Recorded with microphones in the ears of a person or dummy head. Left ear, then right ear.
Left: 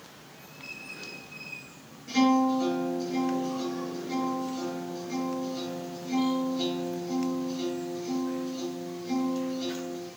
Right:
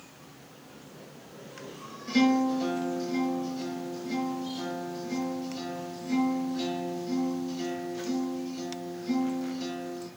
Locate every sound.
2.1 s a guitar: 45° right (ahead or behind), 6.5 m